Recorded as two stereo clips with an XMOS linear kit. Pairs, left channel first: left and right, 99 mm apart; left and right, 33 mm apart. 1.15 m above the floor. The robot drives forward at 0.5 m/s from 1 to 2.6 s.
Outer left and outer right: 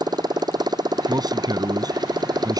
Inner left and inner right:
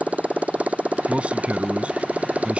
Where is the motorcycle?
45° right (ahead or behind).